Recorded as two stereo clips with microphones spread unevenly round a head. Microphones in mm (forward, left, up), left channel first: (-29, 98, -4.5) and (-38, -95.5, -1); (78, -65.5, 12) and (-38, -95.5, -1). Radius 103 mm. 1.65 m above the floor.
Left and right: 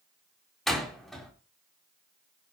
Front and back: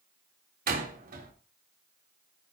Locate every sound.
0.7 s a door slam: 175° left, 3 m